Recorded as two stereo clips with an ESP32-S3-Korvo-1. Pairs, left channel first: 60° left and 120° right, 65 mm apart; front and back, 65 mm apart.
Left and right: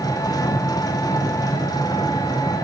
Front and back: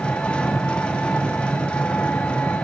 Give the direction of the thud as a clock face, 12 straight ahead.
No thud in this recording.